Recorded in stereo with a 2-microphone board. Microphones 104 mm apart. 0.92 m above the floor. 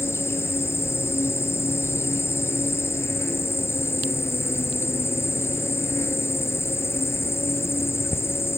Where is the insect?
25° left (ahead or behind).